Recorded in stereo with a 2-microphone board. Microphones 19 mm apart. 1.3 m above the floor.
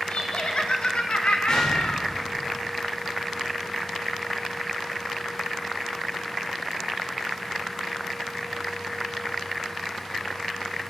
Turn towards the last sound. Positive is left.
turn(degrees=65)  # may be behind; listen again after turning